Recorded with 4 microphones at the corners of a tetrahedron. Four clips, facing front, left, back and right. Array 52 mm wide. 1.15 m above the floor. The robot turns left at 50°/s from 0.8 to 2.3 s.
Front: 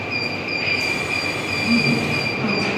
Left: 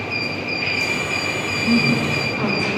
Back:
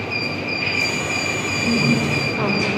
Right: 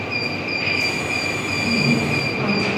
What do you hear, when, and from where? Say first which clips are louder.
1.6 s a woman speaking: left 2 dB, even; 175° right, 4.5 m; by 2.7 s 155° left, 4.5 m